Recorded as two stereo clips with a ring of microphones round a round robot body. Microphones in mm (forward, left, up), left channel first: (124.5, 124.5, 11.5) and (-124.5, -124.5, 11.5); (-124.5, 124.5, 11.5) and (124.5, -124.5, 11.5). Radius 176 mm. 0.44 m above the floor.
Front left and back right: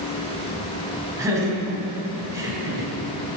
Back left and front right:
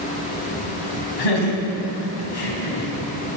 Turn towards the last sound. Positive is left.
turn(degrees=145)